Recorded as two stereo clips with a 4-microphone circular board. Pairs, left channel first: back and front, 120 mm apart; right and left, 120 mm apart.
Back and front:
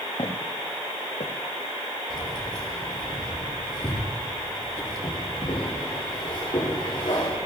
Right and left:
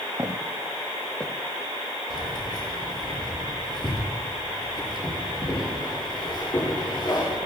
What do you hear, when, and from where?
0.2 s footsteps: 150° left, 2.5 m; by 1.3 s 165° right, 2.0 m
2.1 s keys jangling: 135° right, 7 m